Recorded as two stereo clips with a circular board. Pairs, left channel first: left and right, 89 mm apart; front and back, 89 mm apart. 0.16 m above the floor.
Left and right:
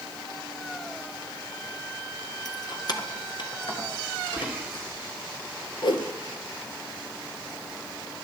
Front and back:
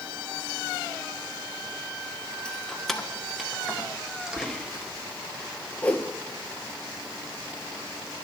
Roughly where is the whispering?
Right.